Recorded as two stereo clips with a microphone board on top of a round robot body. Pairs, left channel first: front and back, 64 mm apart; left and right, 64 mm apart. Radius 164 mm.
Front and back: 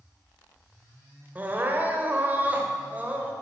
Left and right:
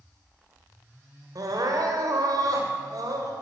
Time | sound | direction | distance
1.4 | crying | 115° right | 2.5 m